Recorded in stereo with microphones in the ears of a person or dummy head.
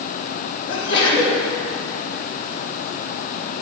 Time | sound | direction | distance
0.7 | a sneeze | 30° left (ahead or behind) | 2.5 m